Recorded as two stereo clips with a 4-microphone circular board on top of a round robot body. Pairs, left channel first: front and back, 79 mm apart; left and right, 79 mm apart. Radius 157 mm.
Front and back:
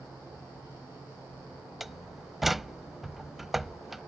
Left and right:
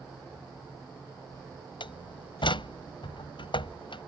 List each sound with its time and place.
1.8 s a door slam: 95° left